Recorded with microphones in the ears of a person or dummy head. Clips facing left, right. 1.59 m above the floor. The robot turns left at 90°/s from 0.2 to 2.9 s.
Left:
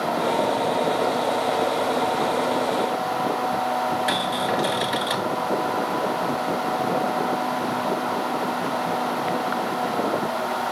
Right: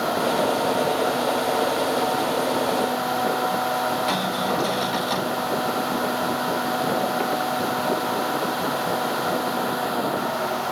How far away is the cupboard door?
About 6 m.